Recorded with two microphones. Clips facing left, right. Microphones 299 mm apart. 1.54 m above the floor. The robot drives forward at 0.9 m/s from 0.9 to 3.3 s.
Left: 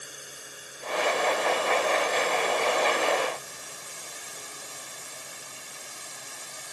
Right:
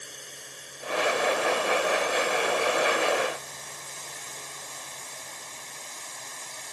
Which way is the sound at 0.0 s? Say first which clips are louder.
Even; 5° left (ahead or behind).